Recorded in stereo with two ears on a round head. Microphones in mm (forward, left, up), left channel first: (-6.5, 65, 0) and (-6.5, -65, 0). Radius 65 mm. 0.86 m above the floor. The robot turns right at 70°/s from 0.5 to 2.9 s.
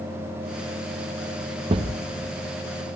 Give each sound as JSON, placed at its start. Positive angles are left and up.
{"t": 1.7, "sound": "a thud", "side_deg": -30, "distance_m": 0.7}